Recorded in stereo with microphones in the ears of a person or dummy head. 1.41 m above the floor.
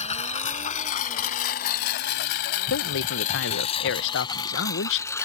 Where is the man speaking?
70° left (ahead or behind).